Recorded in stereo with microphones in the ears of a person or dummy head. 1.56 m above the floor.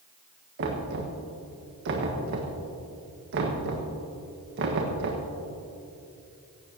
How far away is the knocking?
About 1.5 m.